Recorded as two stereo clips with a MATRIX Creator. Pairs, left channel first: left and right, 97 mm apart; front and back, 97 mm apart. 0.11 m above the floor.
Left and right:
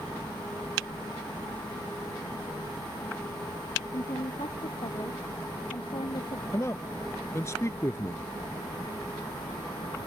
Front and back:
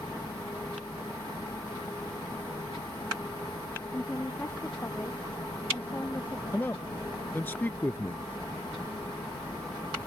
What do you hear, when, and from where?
3.9 s a woman speaking: 70° left
6.5 s a man speaking: 55° left